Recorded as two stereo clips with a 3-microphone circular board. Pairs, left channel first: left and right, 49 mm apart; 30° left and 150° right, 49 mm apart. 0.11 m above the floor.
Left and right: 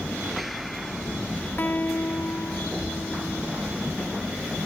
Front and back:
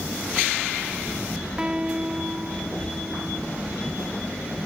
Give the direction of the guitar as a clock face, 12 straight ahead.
7 o'clock.